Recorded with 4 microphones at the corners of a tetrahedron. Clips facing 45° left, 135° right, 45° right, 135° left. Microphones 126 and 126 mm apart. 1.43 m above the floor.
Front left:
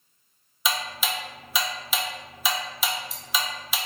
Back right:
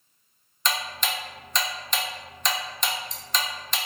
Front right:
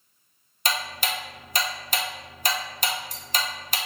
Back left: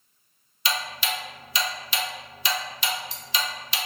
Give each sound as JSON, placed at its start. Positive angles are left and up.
{"t": 0.7, "sound": "ticking", "azimuth_deg": -35, "distance_m": 0.5}